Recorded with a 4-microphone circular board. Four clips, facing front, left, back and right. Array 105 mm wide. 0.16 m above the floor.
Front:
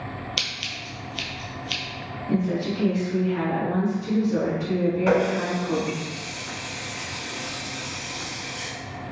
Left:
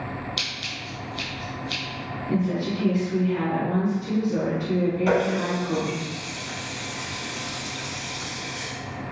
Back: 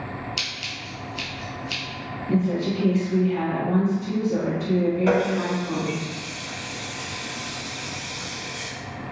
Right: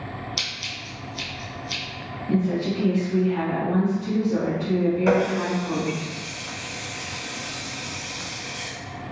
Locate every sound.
0.4 s scissors: 10° right, 0.9 m
2.3 s a woman speaking: 70° right, 1.6 m
5.1 s a running tap: 55° right, 0.8 m